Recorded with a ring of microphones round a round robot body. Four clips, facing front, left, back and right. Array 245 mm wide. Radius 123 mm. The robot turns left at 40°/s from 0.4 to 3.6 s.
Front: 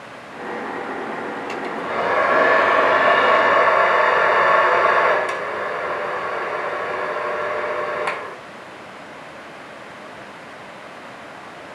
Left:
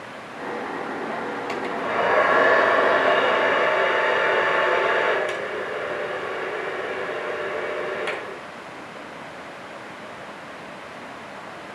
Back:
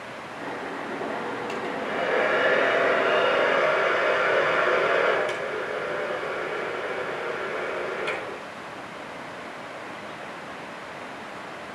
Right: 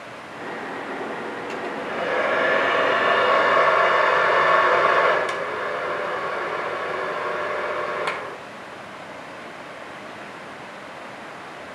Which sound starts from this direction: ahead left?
A hair dryer, at 1.5 s.